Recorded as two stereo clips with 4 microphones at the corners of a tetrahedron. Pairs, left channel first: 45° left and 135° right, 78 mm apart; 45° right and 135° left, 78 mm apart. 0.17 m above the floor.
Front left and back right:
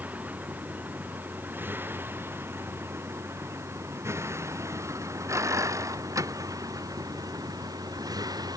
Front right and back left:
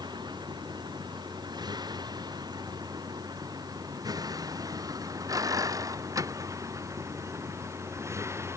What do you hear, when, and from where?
0.0 s a vehicle: 155° left; by 8.6 s 170° right